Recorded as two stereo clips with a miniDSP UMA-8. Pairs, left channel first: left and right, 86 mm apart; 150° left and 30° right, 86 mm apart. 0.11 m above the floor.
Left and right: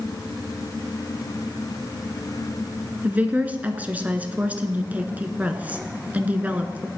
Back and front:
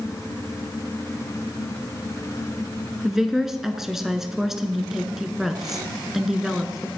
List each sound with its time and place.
3.0 s a woman speaking: 105° right, 1.0 m